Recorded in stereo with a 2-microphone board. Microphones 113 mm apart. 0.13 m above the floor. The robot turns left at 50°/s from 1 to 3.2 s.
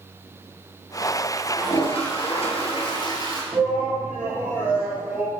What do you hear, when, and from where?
1.6 s a toilet flushing: 125° left, 1.7 m; by 3.4 s 40° left, 1.7 m
3.5 s a shout: 10° right (ahead or behind), 3.5 m